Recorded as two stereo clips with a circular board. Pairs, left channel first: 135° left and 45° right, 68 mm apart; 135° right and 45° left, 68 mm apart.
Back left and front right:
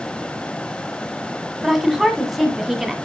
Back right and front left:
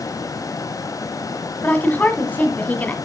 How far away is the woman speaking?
About 1.6 m.